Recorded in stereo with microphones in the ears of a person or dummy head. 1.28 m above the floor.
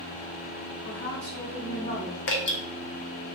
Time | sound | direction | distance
0.8 | a woman speaking | 35° left (ahead or behind) | 1.8 m
2.3 | dripping | 55° left (ahead or behind) | 0.6 m